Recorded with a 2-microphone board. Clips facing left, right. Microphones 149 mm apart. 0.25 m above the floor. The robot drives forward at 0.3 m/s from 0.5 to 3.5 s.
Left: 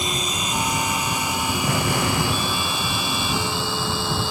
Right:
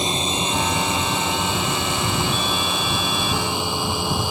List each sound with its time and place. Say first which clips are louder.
0.0 s a drone: right 3 dB; 25° right (ahead or behind); by 4.3 s 15° right (ahead or behind)
1.6 s an explosion: left 2 dB; 70° left (ahead or behind)